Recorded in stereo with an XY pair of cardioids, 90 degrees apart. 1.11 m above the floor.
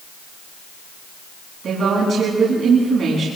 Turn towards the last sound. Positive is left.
turn(degrees=-60)